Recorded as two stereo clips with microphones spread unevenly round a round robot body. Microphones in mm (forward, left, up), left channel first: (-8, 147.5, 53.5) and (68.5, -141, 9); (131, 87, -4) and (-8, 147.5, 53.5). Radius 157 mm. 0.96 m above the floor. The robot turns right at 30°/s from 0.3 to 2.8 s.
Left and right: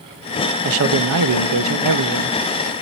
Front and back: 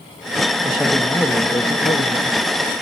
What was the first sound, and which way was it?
A man speaking, 105° right.